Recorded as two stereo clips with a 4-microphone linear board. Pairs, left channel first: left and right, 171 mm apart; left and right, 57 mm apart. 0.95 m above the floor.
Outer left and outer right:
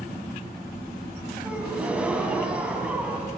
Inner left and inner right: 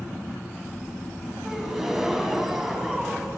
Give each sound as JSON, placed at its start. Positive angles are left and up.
{"t": 1.4, "sound": "a gasp", "side_deg": -5, "distance_m": 2.5}